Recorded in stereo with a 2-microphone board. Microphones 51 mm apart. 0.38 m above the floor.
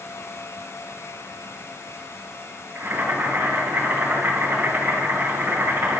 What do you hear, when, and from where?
2.8 s boiling: 35° right (ahead or behind), 5 m